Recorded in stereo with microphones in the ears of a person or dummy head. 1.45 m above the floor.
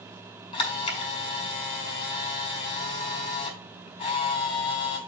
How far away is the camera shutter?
About 4.5 m.